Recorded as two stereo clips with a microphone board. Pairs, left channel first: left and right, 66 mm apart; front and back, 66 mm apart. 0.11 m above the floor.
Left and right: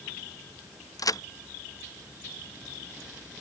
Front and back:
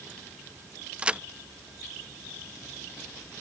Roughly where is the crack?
Left.